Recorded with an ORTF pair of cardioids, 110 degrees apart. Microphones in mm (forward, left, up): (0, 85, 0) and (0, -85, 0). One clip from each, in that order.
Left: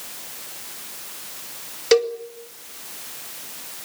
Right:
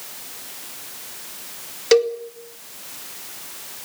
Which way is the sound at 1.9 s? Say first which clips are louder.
Right 2 dB; 5° right.